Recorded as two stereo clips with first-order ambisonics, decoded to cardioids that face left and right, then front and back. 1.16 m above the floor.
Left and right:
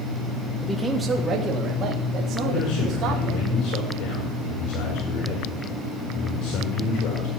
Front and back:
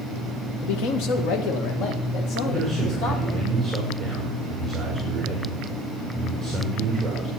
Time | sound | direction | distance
0.6 | a man speaking | 5° left | 1.0 m
2.4 | a man speaking | 85° left | 6.5 m